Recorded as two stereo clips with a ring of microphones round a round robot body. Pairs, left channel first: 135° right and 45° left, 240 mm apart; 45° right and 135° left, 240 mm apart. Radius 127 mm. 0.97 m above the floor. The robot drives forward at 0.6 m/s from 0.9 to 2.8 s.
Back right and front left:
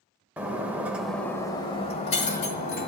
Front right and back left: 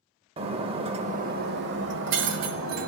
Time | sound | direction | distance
0.4 | breaking glass | 120° left | 0.7 m